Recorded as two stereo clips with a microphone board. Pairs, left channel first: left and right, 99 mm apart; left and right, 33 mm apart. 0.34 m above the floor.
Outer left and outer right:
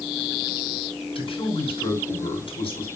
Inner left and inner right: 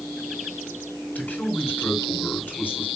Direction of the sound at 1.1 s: 60° left (ahead or behind).